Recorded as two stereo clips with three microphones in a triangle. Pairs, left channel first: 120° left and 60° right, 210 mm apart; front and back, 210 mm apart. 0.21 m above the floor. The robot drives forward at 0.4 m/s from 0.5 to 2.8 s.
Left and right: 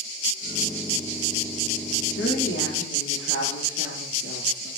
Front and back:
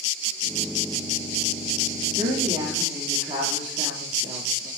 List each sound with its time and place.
2.1 s a woman speaking: 115° left, 6 m